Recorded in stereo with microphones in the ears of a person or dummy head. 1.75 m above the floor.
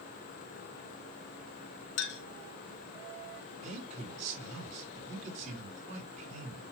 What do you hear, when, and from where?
2.0 s a clink: 60° left (ahead or behind), 1.1 m
3.6 s a man speaking: 45° right (ahead or behind), 5 m